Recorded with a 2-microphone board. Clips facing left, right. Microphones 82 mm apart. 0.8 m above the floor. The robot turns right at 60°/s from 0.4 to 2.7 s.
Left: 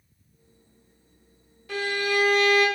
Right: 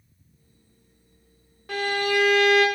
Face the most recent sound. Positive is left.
turn(degrees=-65)